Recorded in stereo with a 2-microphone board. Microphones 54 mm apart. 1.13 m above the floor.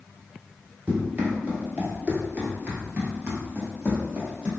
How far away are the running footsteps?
About 1.4 m.